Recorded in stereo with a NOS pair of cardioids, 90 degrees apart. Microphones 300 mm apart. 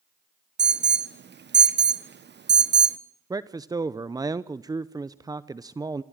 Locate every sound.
0.6 s an alarm: 35° right, 1.4 m
3.3 s a man speaking: 10° right, 0.7 m